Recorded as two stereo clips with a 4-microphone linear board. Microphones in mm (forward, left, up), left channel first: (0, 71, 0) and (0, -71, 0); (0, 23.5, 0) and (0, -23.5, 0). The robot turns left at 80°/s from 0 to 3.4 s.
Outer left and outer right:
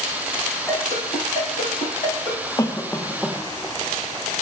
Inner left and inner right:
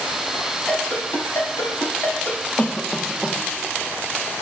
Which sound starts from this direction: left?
A cough, at 2.6 s.